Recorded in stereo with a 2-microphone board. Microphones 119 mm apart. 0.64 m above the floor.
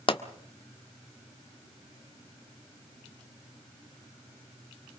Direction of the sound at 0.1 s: 45° left (ahead or behind).